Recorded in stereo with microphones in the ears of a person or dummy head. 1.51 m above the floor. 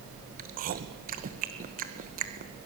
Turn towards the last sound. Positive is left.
turn(degrees=-45)  # may be behind; listen again after turning